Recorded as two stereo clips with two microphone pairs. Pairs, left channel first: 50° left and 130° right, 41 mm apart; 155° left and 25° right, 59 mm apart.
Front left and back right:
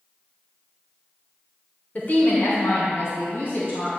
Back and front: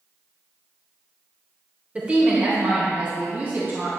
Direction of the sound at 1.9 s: 35° left.